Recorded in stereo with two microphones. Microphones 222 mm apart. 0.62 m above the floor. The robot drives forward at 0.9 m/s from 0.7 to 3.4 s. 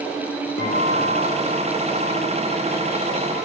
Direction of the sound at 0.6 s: 50° left (ahead or behind).